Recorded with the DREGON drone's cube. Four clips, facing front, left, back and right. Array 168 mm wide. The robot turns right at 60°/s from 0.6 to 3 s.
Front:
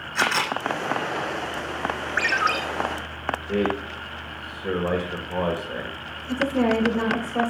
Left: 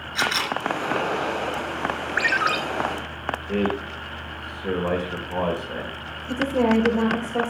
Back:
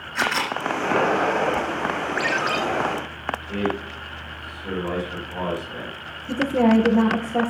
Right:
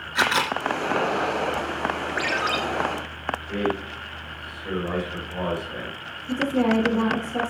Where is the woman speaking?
175° right, 4 m.